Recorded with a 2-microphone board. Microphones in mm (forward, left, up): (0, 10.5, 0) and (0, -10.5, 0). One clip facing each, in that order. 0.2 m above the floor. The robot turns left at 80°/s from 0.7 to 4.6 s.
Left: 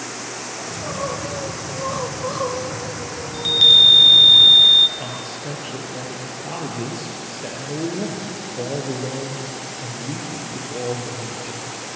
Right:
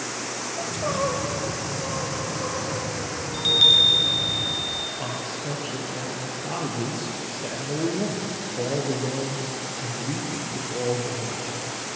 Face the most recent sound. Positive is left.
turn(degrees=10)  # may be behind; listen again after turning